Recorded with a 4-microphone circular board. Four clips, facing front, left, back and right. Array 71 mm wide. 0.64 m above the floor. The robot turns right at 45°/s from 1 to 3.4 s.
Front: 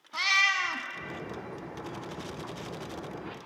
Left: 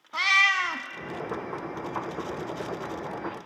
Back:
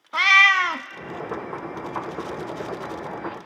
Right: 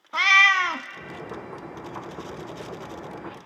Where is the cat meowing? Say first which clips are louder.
Right 5 dB, back 11 dB; 150° right, 0.7 m.